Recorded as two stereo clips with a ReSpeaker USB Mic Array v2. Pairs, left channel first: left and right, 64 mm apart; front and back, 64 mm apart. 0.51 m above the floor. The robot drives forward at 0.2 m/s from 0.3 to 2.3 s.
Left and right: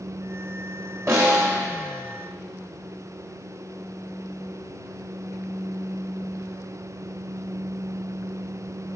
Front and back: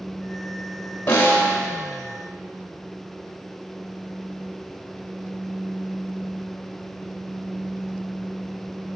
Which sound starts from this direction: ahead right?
A snare drum, at 1.1 s.